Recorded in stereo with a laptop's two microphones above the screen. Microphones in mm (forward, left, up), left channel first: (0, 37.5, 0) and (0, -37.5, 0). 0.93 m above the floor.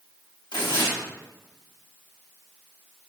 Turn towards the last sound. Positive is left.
turn(degrees=85)